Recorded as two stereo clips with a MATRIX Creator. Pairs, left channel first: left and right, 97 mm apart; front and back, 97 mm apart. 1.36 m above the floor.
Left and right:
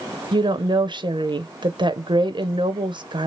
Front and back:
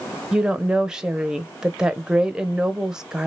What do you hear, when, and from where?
0.3 s a woman speaking: 100° right, 0.6 m